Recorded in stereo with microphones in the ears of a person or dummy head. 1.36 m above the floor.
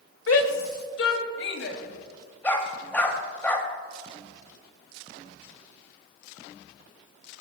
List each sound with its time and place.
0.3 s a shout: 85° left, 1.8 m; by 1.8 s 75° left (ahead or behind), 3 m
2.4 s a dog barking: 5° left (ahead or behind), 2 m